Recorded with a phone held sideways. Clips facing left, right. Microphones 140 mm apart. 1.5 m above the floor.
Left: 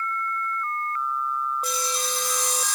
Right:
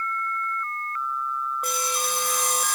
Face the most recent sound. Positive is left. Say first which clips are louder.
# right 1 dB
turn(degrees=-55)  # may be behind; listen again after turning